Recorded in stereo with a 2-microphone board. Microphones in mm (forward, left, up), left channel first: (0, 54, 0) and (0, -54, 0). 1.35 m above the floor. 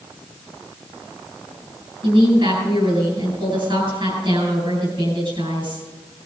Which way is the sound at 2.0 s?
55° right (ahead or behind).